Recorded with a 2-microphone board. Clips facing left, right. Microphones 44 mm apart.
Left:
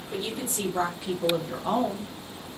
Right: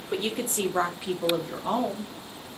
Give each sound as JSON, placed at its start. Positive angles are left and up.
{"t": 0.1, "sound": "a woman speaking", "side_deg": -65, "distance_m": 0.7}